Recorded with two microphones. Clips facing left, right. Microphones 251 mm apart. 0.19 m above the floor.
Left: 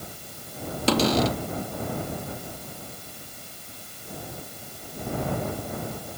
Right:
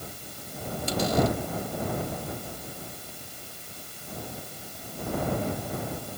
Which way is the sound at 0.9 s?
80° left.